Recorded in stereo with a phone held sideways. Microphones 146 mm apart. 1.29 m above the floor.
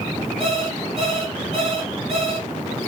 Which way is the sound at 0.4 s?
45° right (ahead or behind).